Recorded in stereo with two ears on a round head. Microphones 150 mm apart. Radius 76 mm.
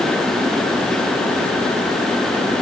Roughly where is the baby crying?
I don't hear a baby crying.